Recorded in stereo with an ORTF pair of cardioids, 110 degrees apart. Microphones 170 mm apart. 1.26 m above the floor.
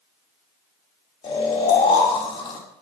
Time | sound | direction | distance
1.2 | snoring | 35° left | 2.5 m